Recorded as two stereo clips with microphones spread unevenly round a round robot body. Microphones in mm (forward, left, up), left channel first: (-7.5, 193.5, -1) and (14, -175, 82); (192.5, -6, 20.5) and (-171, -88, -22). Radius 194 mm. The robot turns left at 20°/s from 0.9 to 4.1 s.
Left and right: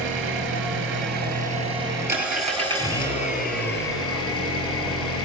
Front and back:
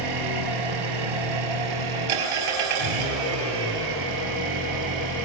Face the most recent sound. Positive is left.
turn(degrees=150)